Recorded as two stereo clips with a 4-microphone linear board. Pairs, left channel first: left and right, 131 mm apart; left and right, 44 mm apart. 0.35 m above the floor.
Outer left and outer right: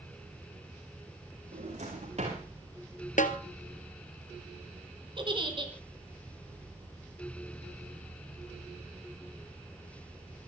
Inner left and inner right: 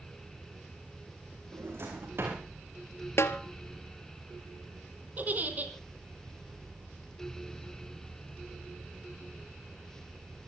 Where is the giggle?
40° right (ahead or behind), 3.5 m.